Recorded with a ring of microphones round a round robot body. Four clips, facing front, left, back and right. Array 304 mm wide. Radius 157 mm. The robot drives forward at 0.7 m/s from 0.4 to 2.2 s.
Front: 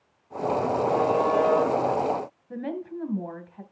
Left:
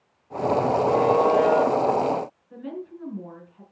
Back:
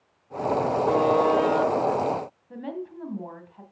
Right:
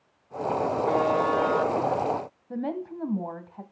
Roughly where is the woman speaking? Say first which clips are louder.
Right 4 dB, front 3 dB; right.